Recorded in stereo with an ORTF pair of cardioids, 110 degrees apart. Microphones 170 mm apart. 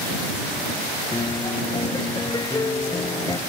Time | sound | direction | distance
1.1 | a piano | 25° left | ?